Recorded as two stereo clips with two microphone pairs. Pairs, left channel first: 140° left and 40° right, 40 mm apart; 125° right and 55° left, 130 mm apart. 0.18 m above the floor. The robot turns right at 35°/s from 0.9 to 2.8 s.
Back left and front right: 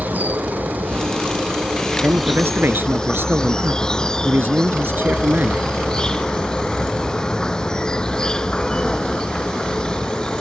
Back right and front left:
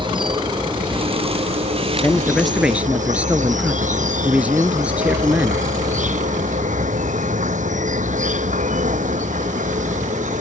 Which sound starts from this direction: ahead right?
A man speaking, at 2.0 s.